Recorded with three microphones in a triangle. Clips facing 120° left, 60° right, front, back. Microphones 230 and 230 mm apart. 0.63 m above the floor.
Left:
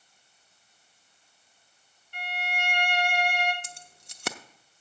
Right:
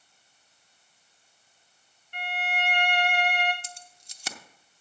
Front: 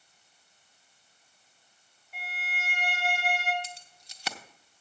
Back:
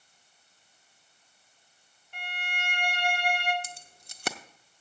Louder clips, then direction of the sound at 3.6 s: Right 1 dB, even; 145° left.